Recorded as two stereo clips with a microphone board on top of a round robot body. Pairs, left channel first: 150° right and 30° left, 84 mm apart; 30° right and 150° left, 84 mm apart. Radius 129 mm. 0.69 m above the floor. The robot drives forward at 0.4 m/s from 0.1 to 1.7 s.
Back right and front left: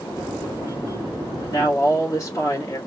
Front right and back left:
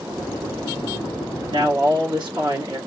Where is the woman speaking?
160° left, 1.8 m.